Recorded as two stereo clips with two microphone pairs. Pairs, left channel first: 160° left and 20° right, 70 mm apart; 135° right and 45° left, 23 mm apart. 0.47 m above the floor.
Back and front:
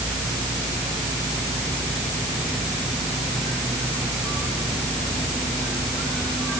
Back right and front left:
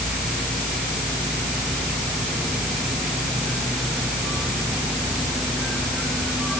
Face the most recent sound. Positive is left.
No sound to turn to.